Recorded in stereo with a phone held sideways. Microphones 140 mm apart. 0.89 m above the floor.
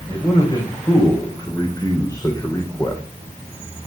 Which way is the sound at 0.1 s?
30° left (ahead or behind).